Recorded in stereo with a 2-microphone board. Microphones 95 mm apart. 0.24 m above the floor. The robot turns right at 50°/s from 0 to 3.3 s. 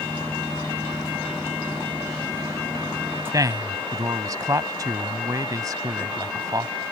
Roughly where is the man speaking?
Right.